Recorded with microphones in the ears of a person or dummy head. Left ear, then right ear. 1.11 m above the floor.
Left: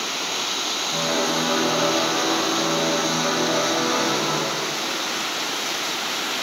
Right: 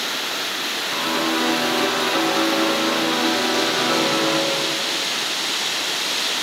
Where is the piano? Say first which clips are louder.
Right 1 dB; 80° right, 7 m.